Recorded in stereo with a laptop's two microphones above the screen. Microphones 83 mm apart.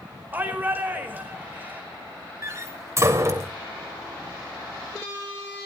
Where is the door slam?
35° right (ahead or behind), 2.5 m.